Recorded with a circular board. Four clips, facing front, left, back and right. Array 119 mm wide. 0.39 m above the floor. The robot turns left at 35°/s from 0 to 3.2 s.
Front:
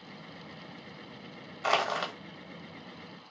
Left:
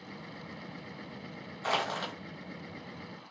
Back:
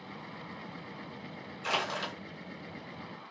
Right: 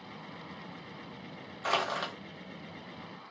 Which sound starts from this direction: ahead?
Crushing, at 1.6 s.